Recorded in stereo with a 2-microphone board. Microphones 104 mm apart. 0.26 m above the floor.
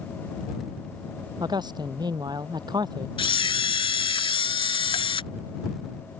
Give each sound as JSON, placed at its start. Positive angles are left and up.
{"t": 1.4, "sound": "a man speaking", "side_deg": -40}
{"t": 3.2, "sound": "a camera shutter", "side_deg": 55}